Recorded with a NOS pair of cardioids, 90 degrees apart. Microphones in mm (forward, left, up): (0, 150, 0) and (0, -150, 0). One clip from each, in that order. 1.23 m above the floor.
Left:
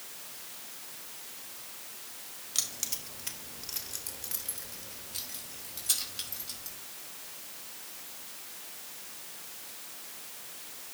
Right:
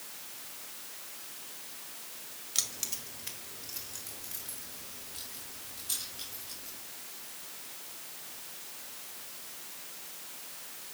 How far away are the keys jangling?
About 2.0 m.